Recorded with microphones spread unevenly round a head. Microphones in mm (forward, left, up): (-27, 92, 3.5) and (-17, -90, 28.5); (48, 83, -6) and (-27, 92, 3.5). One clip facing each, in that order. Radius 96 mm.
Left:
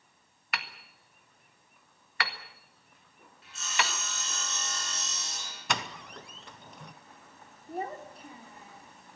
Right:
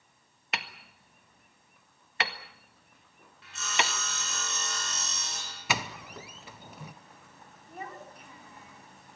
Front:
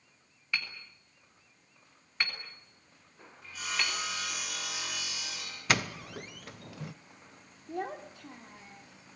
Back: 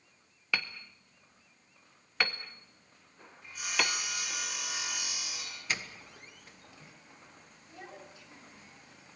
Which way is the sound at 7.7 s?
30° left.